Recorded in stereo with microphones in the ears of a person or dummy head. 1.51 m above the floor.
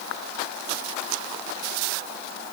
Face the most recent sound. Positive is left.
No sound to turn to.